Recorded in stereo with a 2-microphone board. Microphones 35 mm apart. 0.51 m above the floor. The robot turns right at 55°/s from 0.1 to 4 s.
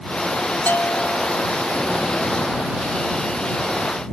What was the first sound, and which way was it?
A bell, 60° left.